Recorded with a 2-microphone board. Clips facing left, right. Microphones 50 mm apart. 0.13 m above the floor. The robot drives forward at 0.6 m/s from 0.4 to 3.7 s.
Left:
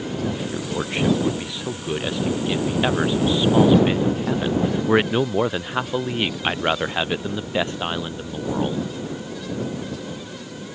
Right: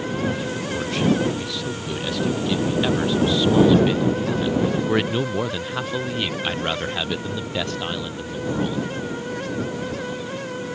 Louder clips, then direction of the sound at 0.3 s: Even; 20° left (ahead or behind).